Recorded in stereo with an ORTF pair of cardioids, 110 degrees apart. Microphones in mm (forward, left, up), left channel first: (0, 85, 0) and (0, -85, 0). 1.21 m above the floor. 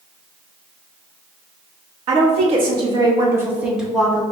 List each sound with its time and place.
2.1 s a woman speaking: 45° right, 1.6 m; by 4.2 s 10° left, 1.3 m